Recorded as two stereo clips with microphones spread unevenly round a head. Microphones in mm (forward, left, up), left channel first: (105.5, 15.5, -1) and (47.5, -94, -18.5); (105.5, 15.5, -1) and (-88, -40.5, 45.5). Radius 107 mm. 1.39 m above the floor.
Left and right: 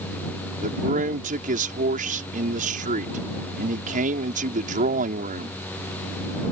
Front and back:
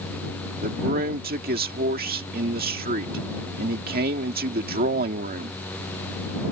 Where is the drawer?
No drawer in this recording.